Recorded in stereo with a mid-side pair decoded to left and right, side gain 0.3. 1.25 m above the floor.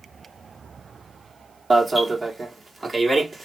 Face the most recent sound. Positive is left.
turn(degrees=-35)